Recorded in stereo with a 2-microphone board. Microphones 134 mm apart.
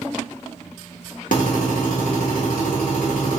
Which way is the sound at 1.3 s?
80° left.